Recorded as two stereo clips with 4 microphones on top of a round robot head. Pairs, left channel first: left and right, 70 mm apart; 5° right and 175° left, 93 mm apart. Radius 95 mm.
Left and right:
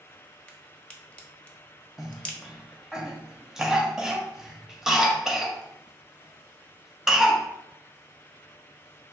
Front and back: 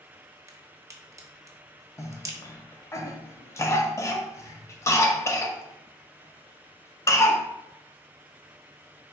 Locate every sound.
0.5 s a crack: 150° left, 1.1 m
2.0 s a cough: 15° right, 0.8 m